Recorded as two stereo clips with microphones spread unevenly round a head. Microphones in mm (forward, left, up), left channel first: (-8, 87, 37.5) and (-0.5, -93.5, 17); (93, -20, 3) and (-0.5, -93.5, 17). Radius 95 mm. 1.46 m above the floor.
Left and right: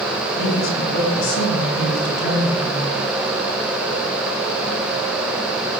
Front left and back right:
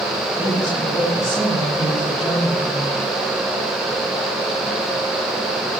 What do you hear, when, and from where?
0.4 s a woman speaking: 110° left, 7 m; by 3.0 s 125° left, 8.5 m